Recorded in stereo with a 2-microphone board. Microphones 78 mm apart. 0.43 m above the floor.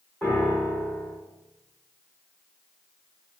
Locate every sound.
0.2 s a piano: 25° left (ahead or behind), 1.8 m